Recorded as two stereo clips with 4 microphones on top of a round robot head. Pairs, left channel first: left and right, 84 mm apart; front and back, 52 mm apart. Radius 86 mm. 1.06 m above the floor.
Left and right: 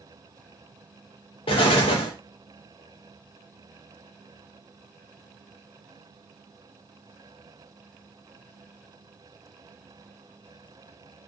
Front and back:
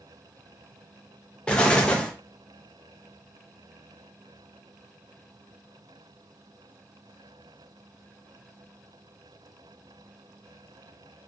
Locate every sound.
1.5 s an explosion: 75° left, 0.5 m